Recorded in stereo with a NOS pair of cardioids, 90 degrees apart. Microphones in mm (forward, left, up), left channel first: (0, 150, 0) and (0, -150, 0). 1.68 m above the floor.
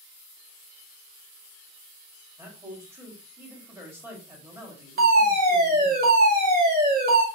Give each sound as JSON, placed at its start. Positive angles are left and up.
{"t": 2.4, "sound": "a man speaking", "azimuth_deg": -10, "distance_m": 2.0}
{"t": 5.0, "sound": "a fire alarm", "azimuth_deg": -35, "distance_m": 2.0}